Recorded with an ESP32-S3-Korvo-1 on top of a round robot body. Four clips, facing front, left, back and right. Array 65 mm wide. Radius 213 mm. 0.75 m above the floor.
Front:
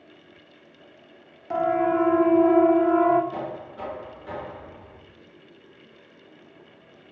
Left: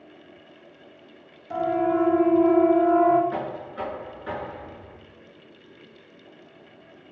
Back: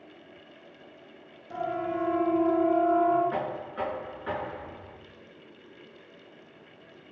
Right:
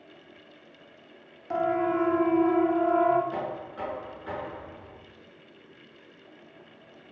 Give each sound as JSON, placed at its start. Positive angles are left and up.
{"t": 1.5, "sound": "a siren", "azimuth_deg": -25, "distance_m": 2.5}
{"t": 3.3, "sound": "knocking", "azimuth_deg": 175, "distance_m": 9.5}